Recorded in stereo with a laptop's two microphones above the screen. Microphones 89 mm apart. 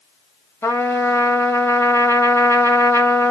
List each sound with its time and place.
0.6 s a trumpet: 25° left (ahead or behind), 1.0 m